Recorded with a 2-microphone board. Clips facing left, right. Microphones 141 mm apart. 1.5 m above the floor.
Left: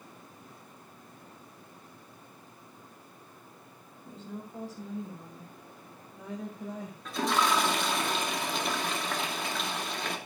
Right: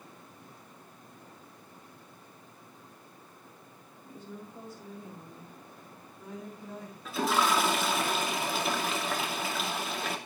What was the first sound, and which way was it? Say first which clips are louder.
A woman speaking: left 3 dB; 90° left.